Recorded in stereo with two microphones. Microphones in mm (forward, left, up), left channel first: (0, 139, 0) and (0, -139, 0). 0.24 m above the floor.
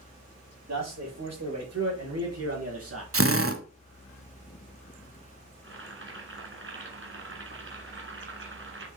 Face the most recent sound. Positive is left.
turn(degrees=-50)  # may be behind; listen again after turning